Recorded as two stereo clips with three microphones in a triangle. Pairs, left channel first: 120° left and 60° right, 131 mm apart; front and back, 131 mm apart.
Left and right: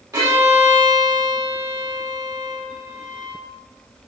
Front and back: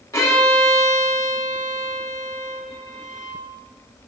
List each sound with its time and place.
0.1 s a violin: 30° right, 0.9 m